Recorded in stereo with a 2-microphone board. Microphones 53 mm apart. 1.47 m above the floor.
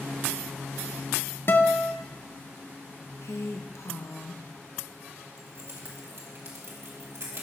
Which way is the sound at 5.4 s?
65° right (ahead or behind).